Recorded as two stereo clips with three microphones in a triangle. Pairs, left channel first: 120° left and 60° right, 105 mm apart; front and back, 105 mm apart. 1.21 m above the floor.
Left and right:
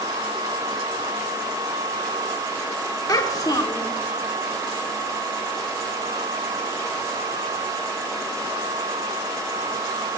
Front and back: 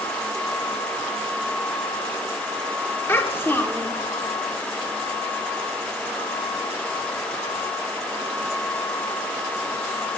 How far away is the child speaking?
About 1.5 m.